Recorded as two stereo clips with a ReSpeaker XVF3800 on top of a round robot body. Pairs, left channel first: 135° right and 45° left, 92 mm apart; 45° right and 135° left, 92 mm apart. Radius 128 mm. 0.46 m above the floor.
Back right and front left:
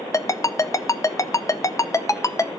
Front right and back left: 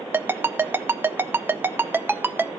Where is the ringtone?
170° right, 0.7 m.